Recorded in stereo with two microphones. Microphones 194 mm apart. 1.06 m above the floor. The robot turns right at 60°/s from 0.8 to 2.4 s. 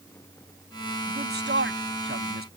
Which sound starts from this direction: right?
A man speaking, at 1.1 s.